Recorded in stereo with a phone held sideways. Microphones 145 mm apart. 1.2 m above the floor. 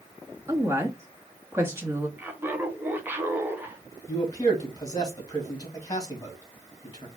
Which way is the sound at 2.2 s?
15° right (ahead or behind).